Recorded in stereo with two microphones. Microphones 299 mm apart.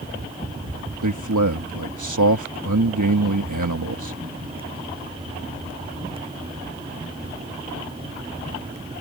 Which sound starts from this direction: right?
A man speaking, at 1.0 s.